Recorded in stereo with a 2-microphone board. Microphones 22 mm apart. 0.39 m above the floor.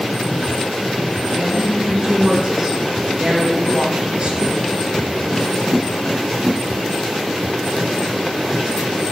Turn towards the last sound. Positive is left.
turn(degrees=-45)  # may be behind; listen again after turning